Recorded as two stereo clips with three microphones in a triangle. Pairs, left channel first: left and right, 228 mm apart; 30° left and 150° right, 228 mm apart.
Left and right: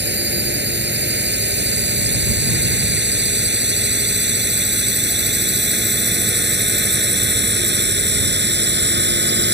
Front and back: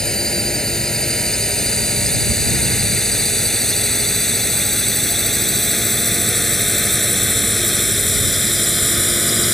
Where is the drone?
55° right; by 9.6 s 60° right.